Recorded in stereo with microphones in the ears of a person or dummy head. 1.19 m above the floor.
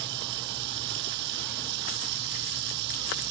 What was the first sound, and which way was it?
Running water, 65° right (ahead or behind).